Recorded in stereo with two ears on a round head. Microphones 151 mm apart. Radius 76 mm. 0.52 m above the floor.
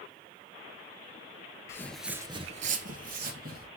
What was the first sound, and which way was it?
Footsteps, 15° left (ahead or behind).